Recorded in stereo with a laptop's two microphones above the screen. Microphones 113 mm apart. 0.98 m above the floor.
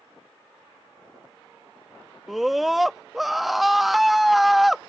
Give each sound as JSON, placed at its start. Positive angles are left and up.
{"t": 2.3, "sound": "a scream", "side_deg": 0}